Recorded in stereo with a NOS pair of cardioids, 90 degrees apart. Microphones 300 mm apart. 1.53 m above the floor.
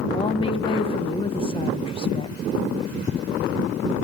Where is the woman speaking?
20° left, 1.8 m.